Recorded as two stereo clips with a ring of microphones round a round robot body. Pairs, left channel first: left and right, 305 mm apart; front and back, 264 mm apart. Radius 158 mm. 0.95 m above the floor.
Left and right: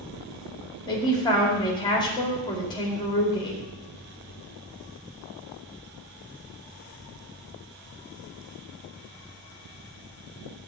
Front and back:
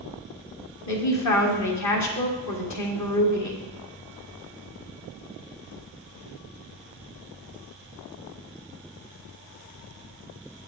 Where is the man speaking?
15° left, 2.5 m.